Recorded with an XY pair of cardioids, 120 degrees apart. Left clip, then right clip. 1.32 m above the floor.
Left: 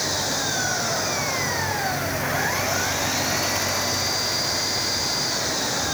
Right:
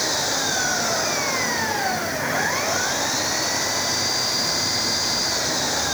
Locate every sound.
0.0 s an engine running: 10° right